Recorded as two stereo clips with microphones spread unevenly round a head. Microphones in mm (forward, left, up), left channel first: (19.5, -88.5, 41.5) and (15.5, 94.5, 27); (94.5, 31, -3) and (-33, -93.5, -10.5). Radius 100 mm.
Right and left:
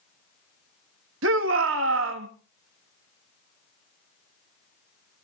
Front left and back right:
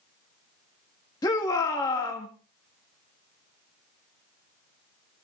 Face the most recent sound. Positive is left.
turn(degrees=115)